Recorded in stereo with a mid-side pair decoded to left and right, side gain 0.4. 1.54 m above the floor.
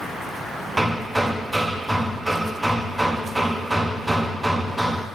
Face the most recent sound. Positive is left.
turn(degrees=-15)